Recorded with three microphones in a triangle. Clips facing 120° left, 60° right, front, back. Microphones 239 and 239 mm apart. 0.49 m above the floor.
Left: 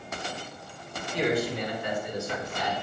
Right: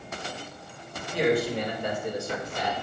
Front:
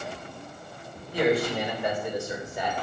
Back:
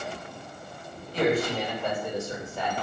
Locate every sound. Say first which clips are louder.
1.1 s a man speaking: right 3 dB, front 1 dB; 75° right, 3 m; by 2.7 s 70° right, 2 m